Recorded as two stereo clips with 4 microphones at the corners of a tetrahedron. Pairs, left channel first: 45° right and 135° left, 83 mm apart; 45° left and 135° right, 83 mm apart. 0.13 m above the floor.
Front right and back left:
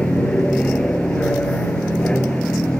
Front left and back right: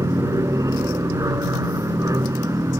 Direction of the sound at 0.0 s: 115° right.